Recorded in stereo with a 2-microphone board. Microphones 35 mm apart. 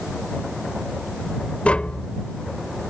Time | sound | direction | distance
1.6 | tapping | 40° left (ahead or behind) | ?